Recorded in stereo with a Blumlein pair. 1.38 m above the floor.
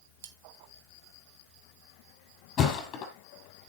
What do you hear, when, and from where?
0.2 s cutlery clinking: 60° right, 1.4 m
2.6 s a thud: 30° left, 5 m